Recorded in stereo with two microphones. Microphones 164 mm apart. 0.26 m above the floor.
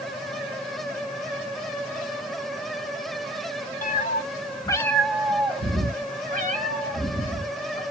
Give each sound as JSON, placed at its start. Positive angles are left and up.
{"t": 3.8, "sound": "a cat meowing", "side_deg": 55, "distance_m": 0.8}